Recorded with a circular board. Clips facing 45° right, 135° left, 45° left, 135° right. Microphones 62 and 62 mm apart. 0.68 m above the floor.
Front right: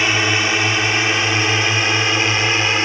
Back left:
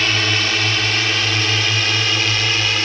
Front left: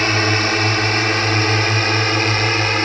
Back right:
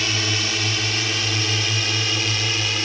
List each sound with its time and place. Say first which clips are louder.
0.0 s a drone: front right 2 dB, front left 8 dB; 25° left; by 2.9 s 20° left